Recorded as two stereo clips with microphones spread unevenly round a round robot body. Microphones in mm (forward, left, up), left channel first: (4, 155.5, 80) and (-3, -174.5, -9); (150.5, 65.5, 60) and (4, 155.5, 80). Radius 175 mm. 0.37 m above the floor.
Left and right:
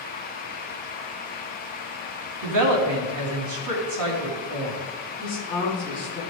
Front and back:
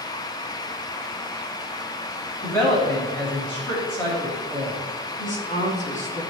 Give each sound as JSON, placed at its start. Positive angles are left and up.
{"t": 2.4, "sound": "a woman speaking", "azimuth_deg": -110, "distance_m": 3.0}
{"t": 5.2, "sound": "a woman speaking", "azimuth_deg": 10, "distance_m": 4.5}